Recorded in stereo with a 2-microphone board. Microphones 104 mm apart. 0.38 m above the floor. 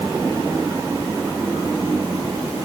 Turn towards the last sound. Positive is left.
No sound to turn to.